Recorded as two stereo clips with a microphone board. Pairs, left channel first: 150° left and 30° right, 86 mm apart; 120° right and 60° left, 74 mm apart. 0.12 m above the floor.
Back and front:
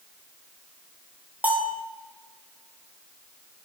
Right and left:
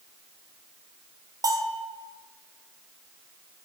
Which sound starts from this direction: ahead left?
A bell, at 1.4 s.